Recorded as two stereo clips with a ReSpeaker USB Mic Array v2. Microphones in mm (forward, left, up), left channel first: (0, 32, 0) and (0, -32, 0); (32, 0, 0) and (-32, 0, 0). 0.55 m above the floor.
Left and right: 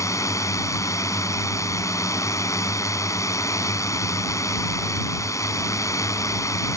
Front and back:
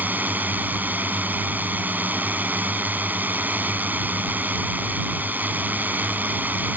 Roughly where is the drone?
Behind left.